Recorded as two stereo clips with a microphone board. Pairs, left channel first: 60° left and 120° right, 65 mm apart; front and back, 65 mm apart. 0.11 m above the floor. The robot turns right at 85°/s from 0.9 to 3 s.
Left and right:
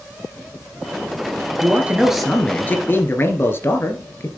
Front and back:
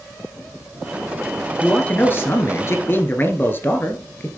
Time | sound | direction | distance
1.6 | a man speaking | 80° right | 1.8 m